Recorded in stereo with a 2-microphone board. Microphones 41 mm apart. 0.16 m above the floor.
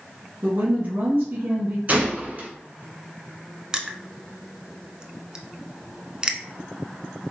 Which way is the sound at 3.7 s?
20° right (ahead or behind).